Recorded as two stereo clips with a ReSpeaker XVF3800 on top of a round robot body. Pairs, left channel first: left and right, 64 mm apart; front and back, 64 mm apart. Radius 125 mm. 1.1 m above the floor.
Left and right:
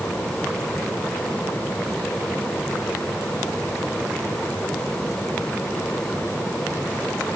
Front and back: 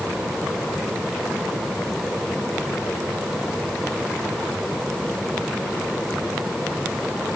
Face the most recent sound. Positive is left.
No sound to turn to.